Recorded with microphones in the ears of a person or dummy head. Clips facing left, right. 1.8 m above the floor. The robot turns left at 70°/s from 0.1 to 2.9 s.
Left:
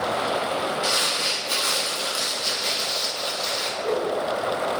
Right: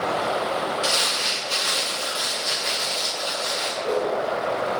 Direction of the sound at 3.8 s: 5° left (ahead or behind).